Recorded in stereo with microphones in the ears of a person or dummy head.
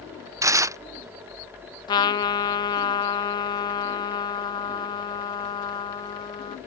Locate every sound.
0.4 s tearing paper: 15° right (ahead or behind)
1.9 s a trumpet: 30° left (ahead or behind)